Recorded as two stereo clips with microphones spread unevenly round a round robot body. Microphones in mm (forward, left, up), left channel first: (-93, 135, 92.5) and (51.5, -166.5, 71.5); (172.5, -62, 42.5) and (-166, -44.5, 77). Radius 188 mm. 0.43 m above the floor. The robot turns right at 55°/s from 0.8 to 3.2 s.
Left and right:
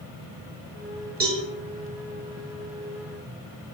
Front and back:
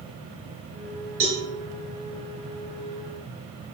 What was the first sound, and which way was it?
A cowbell, 130° right.